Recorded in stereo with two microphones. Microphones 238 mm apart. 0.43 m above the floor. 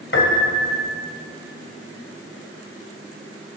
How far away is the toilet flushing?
No toilet flushing in this recording.